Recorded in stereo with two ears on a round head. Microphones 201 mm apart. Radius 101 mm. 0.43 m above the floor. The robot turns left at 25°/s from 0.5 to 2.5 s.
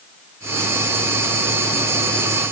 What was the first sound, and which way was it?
Only background noise.